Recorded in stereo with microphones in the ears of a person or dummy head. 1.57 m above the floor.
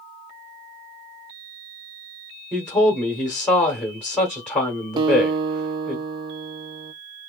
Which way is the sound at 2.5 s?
10° left (ahead or behind).